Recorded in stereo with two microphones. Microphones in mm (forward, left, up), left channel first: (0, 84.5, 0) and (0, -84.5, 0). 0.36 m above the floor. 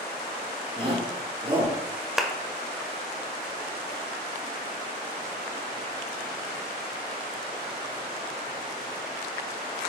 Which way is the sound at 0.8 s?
35° right (ahead or behind).